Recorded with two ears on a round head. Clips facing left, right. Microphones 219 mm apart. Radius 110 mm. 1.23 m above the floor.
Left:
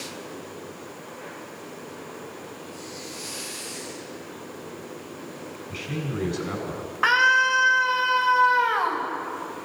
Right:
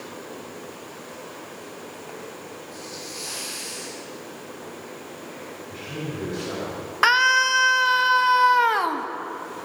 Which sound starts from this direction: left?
A man speaking, at 5.7 s.